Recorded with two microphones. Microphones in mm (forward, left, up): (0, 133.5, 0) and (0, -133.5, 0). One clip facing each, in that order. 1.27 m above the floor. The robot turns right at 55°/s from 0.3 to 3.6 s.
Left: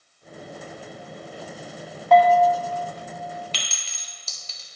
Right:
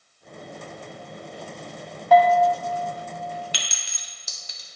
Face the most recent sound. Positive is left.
turn(degrees=-15)  # may be behind; listen again after turning